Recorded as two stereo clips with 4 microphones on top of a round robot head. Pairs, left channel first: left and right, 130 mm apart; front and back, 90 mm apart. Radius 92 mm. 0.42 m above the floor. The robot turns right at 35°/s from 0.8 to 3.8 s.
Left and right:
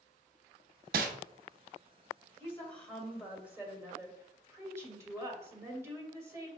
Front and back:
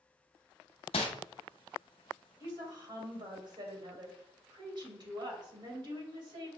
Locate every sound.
0.9 s crumpling: 55° right, 0.5 m; by 1.1 s 50° right, 0.5 m
2.4 s a woman speaking: 155° left, 1.7 m; by 6.5 s 155° right, 1.7 m